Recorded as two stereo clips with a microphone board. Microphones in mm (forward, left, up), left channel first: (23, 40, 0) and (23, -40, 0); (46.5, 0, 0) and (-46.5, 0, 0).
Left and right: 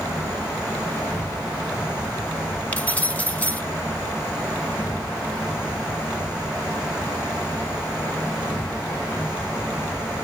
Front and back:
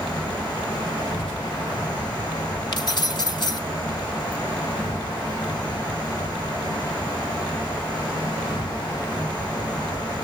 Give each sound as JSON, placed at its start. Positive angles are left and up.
{"t": 0.0, "sound": "an insect", "azimuth_deg": 30, "distance_m": 4.5}
{"t": 2.7, "sound": "keys jangling", "azimuth_deg": 25, "distance_m": 1.0}